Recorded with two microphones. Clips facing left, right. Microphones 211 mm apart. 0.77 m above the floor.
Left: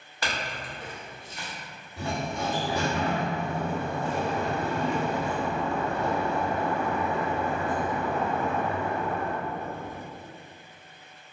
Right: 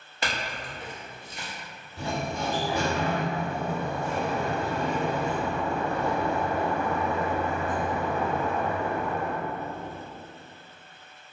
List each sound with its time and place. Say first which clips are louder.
0.2 s a clink: even; 20° right (ahead or behind), 0.7 m
2.0 s a sliding door: even; 60° left (ahead or behind), 1.5 m